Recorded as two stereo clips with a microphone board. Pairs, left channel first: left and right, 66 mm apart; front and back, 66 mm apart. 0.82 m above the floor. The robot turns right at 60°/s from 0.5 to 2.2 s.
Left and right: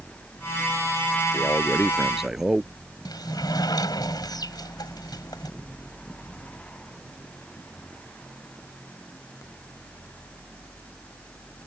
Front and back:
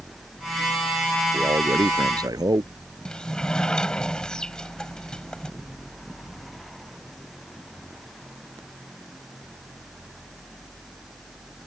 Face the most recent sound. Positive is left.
turn(degrees=80)